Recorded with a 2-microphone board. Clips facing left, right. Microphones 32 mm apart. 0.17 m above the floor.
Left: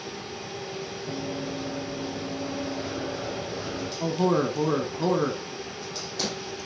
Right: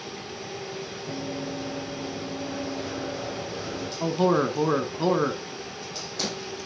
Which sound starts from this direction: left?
Running footsteps, at 1.1 s.